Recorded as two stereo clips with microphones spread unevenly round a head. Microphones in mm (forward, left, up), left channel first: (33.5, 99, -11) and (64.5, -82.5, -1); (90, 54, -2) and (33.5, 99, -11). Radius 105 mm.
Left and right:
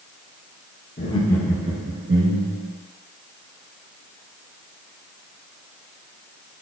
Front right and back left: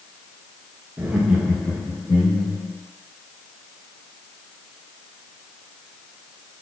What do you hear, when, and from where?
1.0 s laughter: 105° left, 0.8 m; by 2.7 s 85° right, 1.2 m